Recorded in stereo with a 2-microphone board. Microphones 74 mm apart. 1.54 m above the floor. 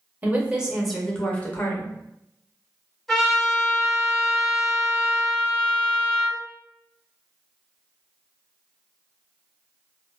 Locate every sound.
0.2 s a woman speaking: 25° right (ahead or behind), 0.9 m; by 1.9 s 40° left (ahead or behind), 0.8 m
3.1 s a trumpet: 5° left (ahead or behind), 1.6 m